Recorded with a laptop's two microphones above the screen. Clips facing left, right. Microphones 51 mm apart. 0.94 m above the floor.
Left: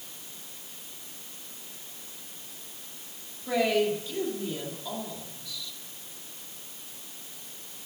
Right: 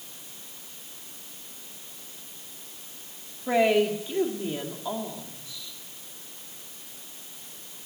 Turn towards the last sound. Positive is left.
turn(degrees=-30)  # may be behind; listen again after turning